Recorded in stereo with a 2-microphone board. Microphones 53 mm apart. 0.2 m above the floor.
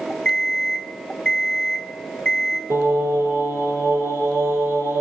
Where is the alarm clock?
15° left (ahead or behind), 0.6 m.